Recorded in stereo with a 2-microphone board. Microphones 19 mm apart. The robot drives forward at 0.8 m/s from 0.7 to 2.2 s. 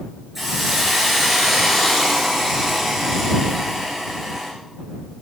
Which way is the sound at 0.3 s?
15° right (ahead or behind).